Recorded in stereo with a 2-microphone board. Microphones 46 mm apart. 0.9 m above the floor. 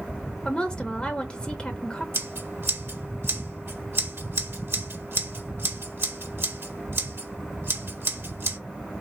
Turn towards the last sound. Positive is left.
turn(degrees=-70)  # may be behind; listen again after turning